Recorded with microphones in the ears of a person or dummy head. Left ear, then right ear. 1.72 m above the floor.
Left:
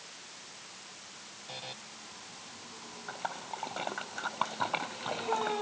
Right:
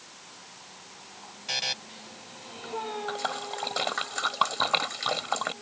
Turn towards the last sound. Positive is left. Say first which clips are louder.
# right 2 dB
turn(degrees=-50)  # may be behind; listen again after turning